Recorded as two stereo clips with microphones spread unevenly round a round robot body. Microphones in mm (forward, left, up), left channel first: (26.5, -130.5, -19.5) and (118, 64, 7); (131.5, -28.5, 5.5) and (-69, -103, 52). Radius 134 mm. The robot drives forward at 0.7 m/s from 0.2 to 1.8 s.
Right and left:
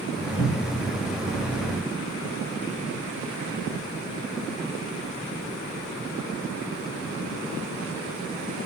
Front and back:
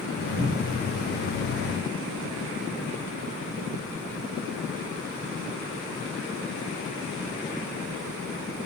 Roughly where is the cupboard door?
Behind left.